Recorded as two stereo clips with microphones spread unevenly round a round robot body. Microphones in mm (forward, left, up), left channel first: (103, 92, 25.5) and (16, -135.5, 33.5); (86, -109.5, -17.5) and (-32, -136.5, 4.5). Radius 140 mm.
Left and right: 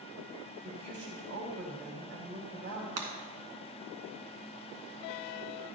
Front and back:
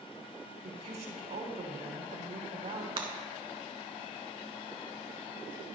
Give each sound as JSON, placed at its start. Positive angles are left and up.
{"t": 0.6, "sound": "a woman speaking", "azimuth_deg": -160, "distance_m": 3.0}
{"t": 3.0, "sound": "breaking glass", "azimuth_deg": -125, "distance_m": 2.0}